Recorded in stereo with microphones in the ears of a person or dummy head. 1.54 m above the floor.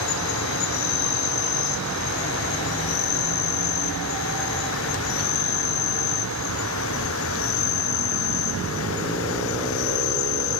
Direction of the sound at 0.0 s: 75° left (ahead or behind).